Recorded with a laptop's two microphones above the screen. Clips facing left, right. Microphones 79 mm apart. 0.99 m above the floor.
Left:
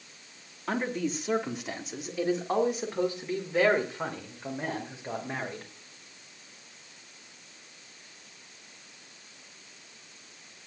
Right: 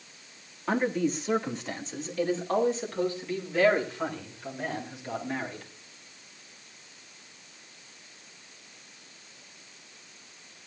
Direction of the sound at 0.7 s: 5° right (ahead or behind).